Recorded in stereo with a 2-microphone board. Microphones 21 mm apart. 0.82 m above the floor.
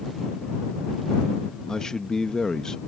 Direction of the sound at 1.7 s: 25° left (ahead or behind).